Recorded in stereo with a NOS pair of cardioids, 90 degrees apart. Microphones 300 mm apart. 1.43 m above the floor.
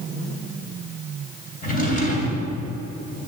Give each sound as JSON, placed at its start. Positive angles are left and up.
{"t": 1.6, "sound": "a drawer", "azimuth_deg": 30, "distance_m": 3.0}